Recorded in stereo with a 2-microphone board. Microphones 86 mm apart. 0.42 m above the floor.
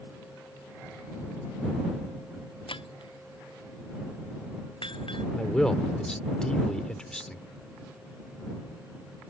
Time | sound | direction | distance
2.7 | breaking glass | 85° left | ?
5.4 | a man speaking | 10° left (ahead or behind) | ?